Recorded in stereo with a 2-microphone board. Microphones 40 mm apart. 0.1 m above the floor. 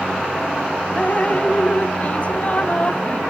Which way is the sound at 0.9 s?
35° left (ahead or behind).